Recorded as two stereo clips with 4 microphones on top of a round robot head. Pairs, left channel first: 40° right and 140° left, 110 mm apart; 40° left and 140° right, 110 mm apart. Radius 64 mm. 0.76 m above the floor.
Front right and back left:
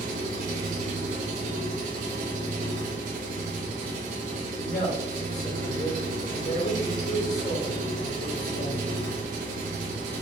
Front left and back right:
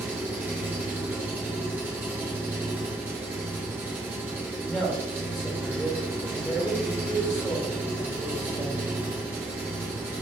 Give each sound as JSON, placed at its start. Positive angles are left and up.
{"t": 0.0, "sound": "an engine running", "azimuth_deg": 145, "distance_m": 1.2}
{"t": 4.6, "sound": "a man speaking", "azimuth_deg": -45, "distance_m": 2.5}